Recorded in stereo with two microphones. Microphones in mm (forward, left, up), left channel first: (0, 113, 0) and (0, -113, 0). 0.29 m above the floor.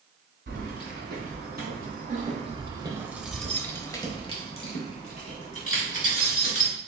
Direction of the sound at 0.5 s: 50° right (ahead or behind).